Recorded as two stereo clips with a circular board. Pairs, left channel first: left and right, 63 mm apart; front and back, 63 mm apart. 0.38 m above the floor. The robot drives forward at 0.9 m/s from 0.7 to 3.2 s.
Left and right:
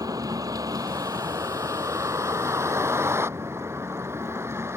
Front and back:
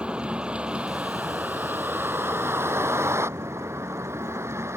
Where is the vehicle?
110° right; by 4.8 s 135° right.